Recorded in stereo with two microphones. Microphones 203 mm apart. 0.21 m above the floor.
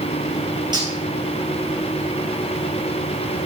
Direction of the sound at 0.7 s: 20° right (ahead or behind).